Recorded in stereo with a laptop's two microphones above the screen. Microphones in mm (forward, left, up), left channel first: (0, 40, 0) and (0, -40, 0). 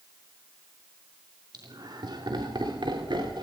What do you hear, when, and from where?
1.5 s laughter: 60° right (ahead or behind), 2.5 m; by 3.4 s 80° right, 3.5 m